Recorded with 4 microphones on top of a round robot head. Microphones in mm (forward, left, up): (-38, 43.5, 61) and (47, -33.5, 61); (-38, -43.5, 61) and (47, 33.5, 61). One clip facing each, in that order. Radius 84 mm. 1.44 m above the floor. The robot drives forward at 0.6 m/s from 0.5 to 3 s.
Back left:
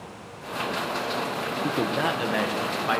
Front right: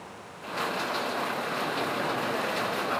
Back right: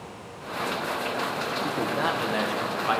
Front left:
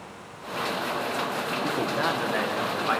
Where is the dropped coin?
I don't hear a dropped coin.